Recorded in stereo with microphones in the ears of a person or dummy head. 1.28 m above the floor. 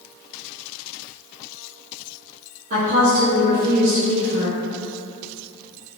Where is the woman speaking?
45° right (ahead or behind), 0.8 m.